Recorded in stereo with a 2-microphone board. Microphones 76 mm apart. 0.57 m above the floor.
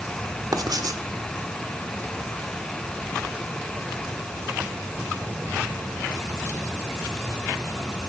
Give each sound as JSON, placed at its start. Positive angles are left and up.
{"t": 0.5, "sound": "writing", "side_deg": -60, "distance_m": 1.0}